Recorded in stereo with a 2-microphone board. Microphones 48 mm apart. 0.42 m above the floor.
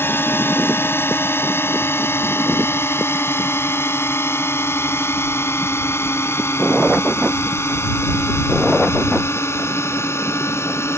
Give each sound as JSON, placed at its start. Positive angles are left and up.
{"t": 0.0, "sound": "a drone", "side_deg": 55}